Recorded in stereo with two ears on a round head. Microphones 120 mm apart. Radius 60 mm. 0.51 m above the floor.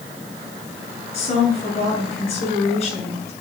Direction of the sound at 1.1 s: 50° left (ahead or behind).